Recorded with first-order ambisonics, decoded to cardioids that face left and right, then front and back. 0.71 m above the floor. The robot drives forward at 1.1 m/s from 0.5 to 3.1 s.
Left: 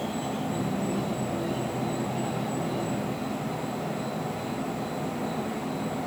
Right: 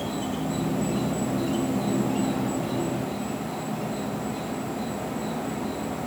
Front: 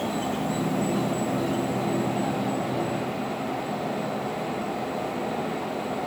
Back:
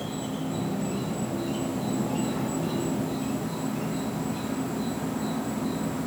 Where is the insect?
45° right, 2.5 m; by 6.1 s 140° right, 2.5 m.